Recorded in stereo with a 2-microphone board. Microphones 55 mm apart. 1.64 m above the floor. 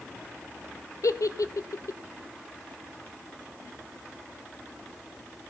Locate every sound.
1.0 s a giggle: 85° left, 0.6 m